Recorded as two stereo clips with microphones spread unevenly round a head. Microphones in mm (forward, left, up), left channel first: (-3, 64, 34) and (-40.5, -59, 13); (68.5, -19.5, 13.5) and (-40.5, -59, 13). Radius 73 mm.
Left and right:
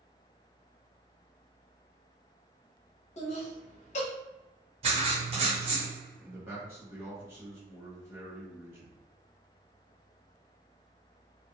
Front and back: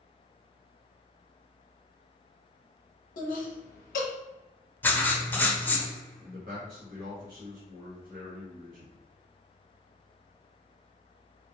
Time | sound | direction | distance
3.2 | laughter | 30° left | 0.6 m
4.8 | writing | 55° right | 0.7 m
6.2 | a man speaking | straight behind | 1.2 m